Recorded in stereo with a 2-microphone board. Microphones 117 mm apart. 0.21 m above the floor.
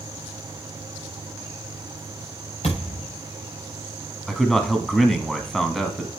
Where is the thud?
60° left (ahead or behind), 5.5 m.